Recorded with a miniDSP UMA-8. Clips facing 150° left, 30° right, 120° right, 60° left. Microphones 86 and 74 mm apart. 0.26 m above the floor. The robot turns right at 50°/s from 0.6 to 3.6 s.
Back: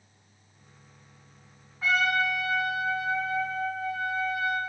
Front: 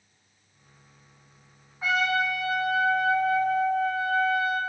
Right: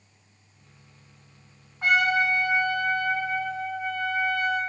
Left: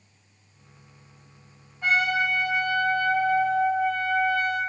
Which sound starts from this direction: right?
A trumpet, at 1.8 s.